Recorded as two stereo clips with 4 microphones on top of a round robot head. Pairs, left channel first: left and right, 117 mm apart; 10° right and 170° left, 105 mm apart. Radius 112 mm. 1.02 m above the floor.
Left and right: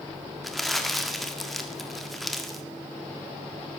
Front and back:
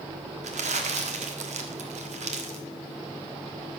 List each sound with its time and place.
0.4 s crumpling: straight behind, 1.6 m